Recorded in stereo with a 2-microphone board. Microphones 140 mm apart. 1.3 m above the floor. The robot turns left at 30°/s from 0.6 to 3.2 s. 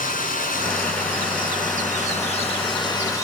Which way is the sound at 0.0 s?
100° left.